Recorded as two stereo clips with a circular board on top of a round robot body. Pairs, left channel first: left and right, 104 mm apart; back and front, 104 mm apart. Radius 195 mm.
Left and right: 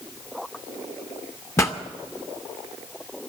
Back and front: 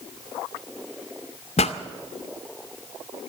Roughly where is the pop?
Behind left.